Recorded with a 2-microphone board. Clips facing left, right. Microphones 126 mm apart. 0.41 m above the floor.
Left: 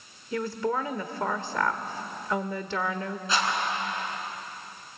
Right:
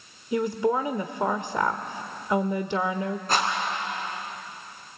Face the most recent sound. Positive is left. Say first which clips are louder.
# right 1 dB
turn(degrees=-50)  # may be behind; listen again after turning